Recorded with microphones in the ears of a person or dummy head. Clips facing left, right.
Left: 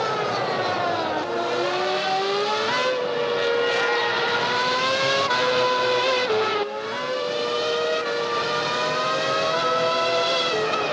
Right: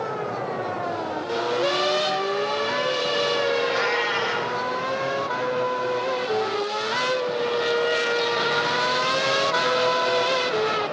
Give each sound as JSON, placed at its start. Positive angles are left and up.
{"t": 3.7, "sound": "a cat meowing", "side_deg": -45, "distance_m": 3.5}